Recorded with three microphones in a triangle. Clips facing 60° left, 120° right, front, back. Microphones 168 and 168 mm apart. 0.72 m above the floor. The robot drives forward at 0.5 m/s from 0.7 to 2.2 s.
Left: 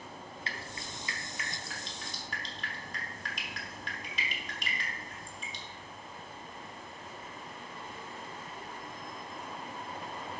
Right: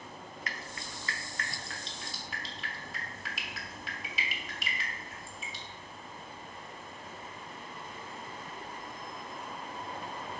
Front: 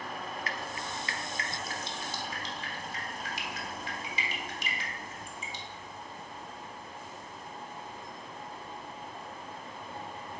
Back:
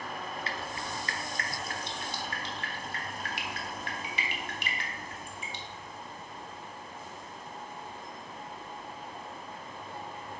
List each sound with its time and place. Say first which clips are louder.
0.5 s dripping: left 1 dB, back 1 dB; 120° left, 0.6 m; by 5.6 s 155° left, 1.2 m